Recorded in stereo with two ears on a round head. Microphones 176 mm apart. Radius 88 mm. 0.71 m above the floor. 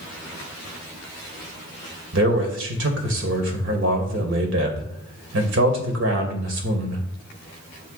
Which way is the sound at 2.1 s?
65° right (ahead or behind).